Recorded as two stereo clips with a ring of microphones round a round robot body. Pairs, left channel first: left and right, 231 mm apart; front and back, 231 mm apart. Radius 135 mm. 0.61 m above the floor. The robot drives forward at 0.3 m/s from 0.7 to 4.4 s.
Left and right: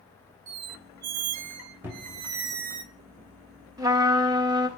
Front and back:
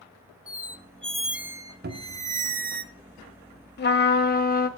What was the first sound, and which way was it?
A squeak, 75° right.